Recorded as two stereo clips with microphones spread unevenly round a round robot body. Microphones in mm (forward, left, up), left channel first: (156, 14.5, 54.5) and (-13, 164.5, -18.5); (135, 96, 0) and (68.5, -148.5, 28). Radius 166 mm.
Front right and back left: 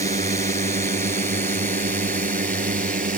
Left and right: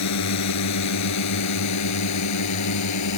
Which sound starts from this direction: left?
A drone, at 0.0 s.